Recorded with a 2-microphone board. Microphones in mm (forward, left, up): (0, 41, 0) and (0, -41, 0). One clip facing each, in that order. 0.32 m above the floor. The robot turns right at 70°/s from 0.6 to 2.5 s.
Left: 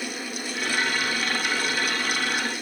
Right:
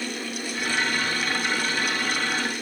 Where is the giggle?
I don't hear a giggle.